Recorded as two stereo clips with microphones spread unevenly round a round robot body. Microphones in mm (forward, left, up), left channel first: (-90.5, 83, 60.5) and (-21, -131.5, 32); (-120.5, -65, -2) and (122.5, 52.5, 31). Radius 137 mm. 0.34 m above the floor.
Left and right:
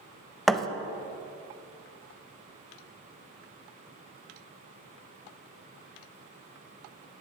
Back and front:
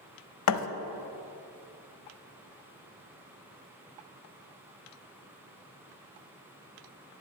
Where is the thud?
160° right, 0.7 m.